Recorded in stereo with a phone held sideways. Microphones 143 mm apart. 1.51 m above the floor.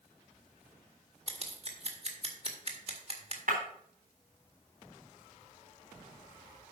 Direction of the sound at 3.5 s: 70° right (ahead or behind).